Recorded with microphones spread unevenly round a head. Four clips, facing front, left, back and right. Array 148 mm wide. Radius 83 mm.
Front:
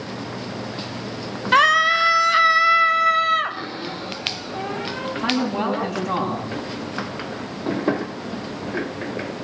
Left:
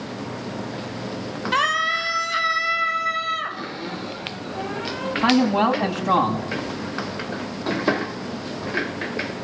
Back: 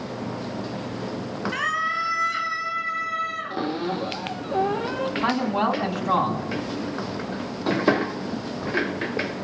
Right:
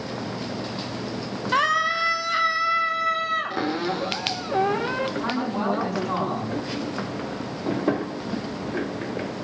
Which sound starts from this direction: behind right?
A cupboard door, at 3.5 s.